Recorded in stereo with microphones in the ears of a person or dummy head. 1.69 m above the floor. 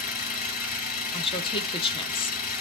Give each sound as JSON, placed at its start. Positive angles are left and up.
{"t": 0.0, "sound": "an engine running", "side_deg": 45, "distance_m": 3.0}
{"t": 1.1, "sound": "a woman speaking", "side_deg": 25, "distance_m": 1.0}